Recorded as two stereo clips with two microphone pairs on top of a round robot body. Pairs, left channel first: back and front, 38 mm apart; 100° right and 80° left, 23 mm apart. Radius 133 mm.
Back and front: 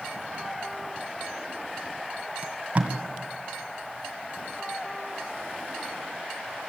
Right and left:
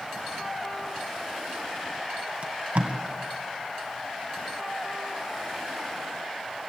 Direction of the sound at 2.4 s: 50° left.